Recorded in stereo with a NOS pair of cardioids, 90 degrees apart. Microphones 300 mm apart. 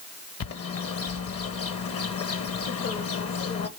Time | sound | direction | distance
0.4 | a bird | 55° left | 1.3 m